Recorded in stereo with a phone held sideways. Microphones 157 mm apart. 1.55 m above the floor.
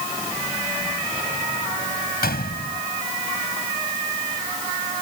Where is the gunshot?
80° left.